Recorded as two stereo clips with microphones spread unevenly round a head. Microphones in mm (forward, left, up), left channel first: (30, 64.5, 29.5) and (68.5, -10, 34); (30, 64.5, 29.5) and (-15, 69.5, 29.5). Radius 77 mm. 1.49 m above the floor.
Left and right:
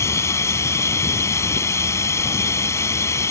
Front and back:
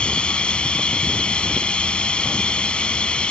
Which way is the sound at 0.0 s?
60° left.